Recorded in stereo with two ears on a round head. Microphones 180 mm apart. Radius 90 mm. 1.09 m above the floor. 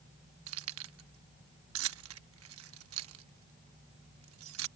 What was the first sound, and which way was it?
Keys jangling, 80° right.